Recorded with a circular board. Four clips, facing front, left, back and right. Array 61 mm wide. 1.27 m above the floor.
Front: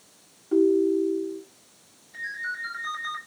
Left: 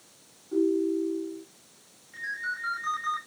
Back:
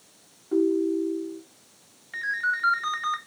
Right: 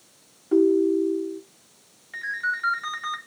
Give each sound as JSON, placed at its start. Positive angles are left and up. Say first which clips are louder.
{"t": 0.5, "sound": "a ringtone", "louder": "right 6 dB, front 3 dB", "azimuth_deg": -75, "distance_m": 1.5}
{"t": 2.1, "sound": "a ringtone", "louder": "right 6 dB, back 6 dB", "azimuth_deg": -150, "distance_m": 3.0}